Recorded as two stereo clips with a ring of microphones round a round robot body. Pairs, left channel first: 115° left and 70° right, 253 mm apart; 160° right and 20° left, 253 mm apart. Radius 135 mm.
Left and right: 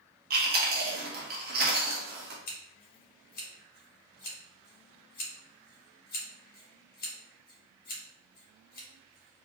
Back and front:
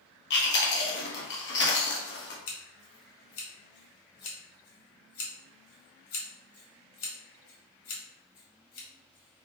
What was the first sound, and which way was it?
Chewing, 115° right.